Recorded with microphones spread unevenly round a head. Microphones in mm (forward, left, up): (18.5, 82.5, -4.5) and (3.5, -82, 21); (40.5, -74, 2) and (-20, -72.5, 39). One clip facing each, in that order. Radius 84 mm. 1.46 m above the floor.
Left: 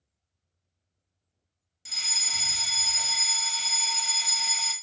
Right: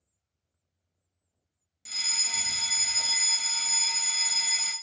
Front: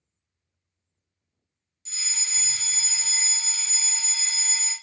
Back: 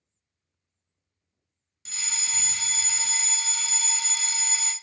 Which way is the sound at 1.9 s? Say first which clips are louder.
Left 1 dB, back 2 dB; 160° left.